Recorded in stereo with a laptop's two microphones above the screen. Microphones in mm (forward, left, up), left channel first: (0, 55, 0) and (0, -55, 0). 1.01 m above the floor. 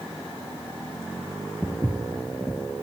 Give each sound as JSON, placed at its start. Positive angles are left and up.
{"t": 1.6, "sound": "footsteps", "side_deg": -20, "distance_m": 1.3}